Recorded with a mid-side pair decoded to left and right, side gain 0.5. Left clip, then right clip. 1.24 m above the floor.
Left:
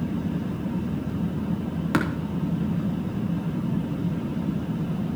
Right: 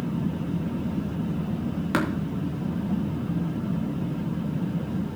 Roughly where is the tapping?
Ahead.